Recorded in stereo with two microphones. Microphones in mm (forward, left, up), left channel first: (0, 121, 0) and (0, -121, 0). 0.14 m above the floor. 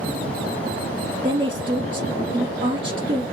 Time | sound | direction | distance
1.2 | a woman speaking | 20° right (ahead or behind) | 2 m